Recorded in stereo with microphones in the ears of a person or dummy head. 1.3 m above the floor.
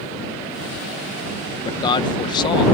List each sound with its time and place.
1.6 s a man speaking: 25° left (ahead or behind)